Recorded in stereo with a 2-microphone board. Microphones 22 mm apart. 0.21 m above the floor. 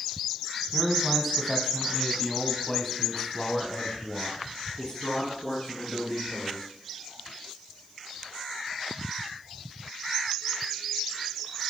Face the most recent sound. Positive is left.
turn(degrees=45)  # may be behind; listen again after turning